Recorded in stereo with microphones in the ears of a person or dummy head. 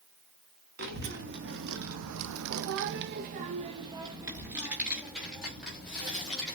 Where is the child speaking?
45° right (ahead or behind), 1.2 m; by 6.5 s centre (ahead or behind), 2 m.